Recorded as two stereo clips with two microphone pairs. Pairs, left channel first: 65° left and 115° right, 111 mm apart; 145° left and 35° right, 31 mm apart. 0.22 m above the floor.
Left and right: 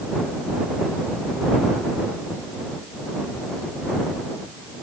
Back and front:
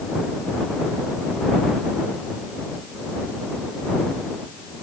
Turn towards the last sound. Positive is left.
No sound to turn to.